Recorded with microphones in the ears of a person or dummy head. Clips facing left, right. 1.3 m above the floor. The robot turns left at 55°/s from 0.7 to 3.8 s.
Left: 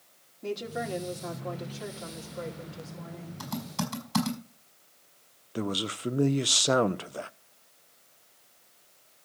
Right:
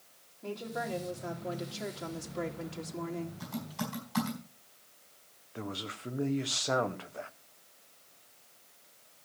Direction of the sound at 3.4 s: 80° left.